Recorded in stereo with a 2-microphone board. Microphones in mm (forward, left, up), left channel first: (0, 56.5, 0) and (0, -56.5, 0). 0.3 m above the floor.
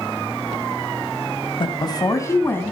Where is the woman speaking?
45° left (ahead or behind), 1.6 m; by 2.7 s 15° left (ahead or behind), 2.5 m.